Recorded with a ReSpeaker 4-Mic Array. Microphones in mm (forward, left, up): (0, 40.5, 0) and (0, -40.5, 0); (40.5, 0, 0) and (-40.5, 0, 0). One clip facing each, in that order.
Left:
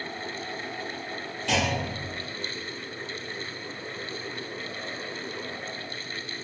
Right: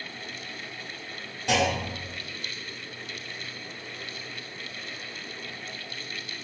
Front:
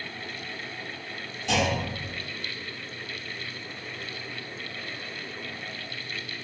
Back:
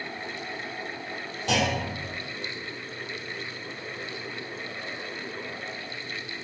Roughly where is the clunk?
Behind.